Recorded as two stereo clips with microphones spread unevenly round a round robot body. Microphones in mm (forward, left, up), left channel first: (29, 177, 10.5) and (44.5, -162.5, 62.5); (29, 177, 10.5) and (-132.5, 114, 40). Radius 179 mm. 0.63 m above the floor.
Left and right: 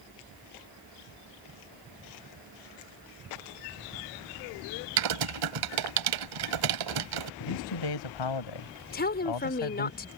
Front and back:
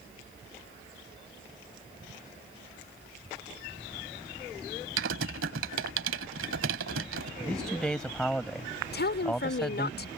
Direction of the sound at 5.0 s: 120° right.